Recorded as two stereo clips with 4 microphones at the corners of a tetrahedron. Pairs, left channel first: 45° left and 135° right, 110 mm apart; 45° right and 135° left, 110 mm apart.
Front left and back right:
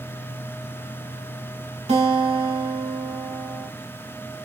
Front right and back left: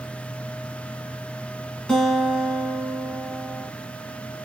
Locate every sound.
1.9 s a guitar: 130° right, 0.9 m